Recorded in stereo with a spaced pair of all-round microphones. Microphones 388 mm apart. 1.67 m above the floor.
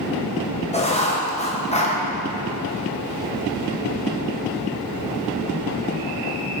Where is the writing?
15° left (ahead or behind), 1.2 m.